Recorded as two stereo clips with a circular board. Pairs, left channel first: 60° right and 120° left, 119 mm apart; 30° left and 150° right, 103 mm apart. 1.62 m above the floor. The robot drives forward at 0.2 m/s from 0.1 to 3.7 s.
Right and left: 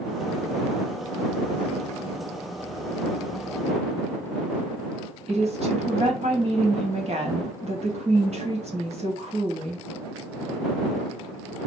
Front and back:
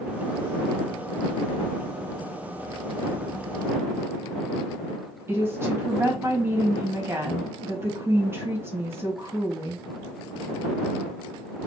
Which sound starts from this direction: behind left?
A woman speaking, at 5.3 s.